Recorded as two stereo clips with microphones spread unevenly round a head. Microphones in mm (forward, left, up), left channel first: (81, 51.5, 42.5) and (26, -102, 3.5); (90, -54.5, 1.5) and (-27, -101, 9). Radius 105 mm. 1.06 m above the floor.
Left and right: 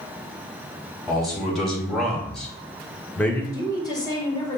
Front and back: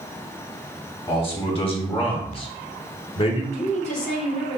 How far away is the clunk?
No clunk in this recording.